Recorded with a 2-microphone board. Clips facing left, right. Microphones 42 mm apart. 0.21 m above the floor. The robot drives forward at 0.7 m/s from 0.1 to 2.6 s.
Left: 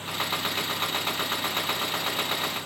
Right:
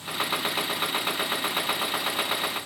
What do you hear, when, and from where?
Only background noise.